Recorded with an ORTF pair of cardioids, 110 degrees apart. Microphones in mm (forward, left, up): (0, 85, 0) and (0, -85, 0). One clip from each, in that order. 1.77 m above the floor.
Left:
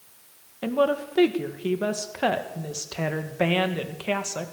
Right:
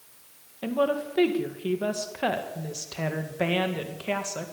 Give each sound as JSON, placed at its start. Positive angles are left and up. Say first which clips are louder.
{"t": 0.6, "sound": "a woman speaking", "louder": "left 2 dB", "azimuth_deg": 15, "distance_m": 2.0}